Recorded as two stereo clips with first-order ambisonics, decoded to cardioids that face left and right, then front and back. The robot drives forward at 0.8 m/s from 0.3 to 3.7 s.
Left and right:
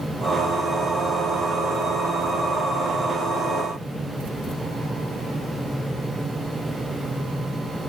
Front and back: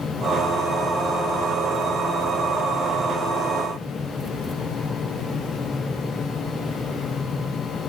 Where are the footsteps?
I don't hear footsteps.